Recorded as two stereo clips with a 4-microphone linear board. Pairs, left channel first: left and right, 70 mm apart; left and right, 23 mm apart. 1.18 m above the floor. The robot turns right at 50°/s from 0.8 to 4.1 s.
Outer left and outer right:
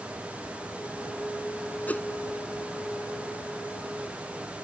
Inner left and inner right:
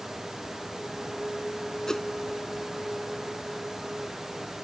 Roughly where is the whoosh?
Left.